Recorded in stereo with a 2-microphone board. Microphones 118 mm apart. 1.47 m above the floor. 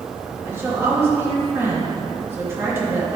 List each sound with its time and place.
0.4 s a woman speaking: 20° right (ahead or behind), 3 m